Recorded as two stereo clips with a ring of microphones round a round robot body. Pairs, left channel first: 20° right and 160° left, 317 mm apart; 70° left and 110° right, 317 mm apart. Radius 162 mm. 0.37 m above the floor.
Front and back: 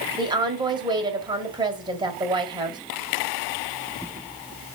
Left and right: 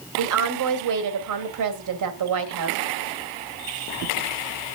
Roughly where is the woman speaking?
Behind right.